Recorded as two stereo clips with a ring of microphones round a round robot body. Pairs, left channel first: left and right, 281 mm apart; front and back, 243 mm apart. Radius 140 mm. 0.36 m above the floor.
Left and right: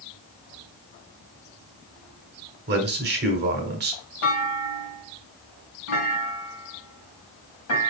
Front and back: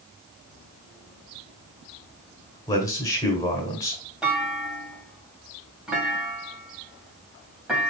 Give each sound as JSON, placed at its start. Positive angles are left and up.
{"t": 2.7, "sound": "a man speaking", "azimuth_deg": -70, "distance_m": 1.5}
{"t": 4.2, "sound": "a clunk", "azimuth_deg": 95, "distance_m": 2.5}